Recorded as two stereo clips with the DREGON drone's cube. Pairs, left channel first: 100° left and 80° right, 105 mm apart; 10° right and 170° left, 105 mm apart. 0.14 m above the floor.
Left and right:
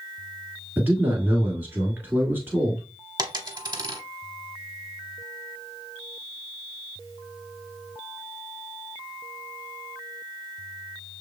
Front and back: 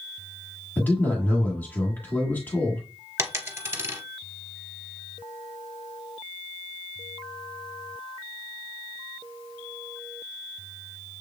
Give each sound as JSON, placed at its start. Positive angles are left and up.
{"t": 0.8, "sound": "a man speaking", "azimuth_deg": -50, "distance_m": 1.5}
{"t": 3.2, "sound": "a dropped coin", "azimuth_deg": -125, "distance_m": 0.9}